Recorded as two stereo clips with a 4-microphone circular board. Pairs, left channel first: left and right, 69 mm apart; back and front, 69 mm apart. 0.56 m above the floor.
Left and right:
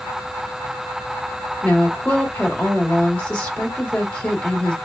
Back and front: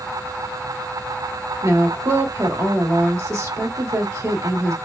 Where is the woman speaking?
20° left, 1.8 m.